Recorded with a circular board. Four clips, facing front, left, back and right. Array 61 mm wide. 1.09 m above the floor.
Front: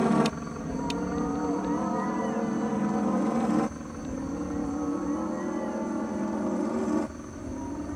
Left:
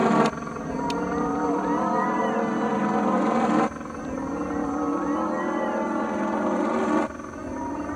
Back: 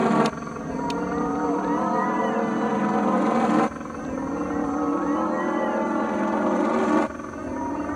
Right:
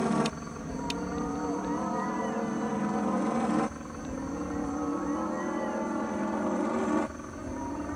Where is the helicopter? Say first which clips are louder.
Left 8 dB, back 4 dB; 125° left; by 8.0 s 150° left.